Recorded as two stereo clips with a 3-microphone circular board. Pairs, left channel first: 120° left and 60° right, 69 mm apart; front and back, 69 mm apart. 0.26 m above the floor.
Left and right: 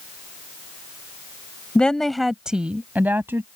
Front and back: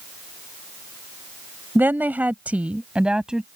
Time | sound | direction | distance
1.8 | a woman speaking | 175° left | ?